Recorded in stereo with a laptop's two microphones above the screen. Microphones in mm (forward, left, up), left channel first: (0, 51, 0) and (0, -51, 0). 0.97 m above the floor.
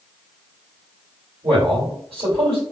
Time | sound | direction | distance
1.4 | a man speaking | 65° right (ahead or behind) | 1.9 m